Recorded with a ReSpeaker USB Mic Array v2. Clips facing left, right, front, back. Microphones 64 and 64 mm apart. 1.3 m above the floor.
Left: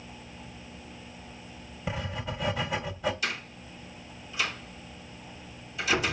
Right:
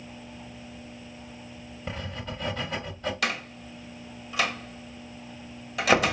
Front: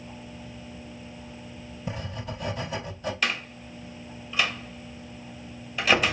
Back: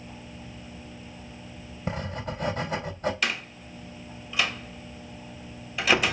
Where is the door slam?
90° right, 1.3 m.